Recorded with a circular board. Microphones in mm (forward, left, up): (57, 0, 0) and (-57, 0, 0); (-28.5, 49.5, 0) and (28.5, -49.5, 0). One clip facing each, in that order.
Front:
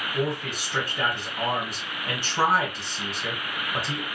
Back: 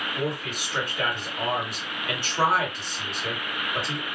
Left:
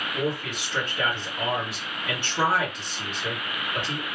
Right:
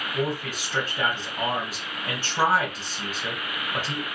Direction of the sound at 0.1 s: 35° right.